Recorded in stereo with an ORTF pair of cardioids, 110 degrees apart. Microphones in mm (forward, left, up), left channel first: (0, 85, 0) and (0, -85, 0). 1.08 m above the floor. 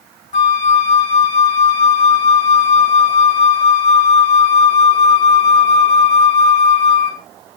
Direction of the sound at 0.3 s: 50° left.